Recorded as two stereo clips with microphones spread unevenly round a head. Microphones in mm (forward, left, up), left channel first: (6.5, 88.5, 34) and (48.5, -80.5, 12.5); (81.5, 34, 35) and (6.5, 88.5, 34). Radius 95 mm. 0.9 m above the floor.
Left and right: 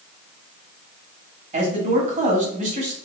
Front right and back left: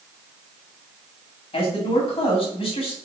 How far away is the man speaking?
About 2 m.